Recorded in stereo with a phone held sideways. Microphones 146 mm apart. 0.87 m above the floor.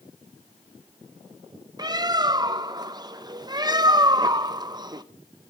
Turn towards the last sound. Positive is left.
turn(degrees=-25)  # may be behind; listen again after turning